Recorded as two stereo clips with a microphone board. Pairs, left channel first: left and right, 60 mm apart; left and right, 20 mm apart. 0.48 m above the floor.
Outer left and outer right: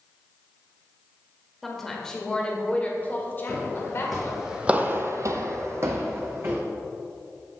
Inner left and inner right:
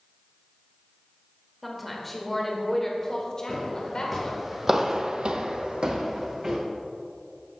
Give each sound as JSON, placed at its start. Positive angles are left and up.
{"t": 1.6, "sound": "a woman speaking", "side_deg": 0, "distance_m": 1.7}
{"t": 3.5, "sound": "footsteps", "side_deg": 10, "distance_m": 2.5}